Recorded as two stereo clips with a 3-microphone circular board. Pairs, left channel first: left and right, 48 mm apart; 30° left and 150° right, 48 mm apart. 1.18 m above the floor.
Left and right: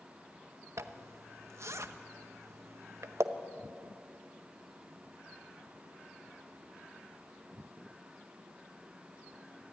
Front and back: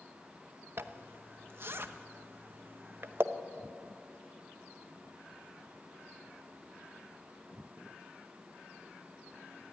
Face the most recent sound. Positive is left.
turn(degrees=-110)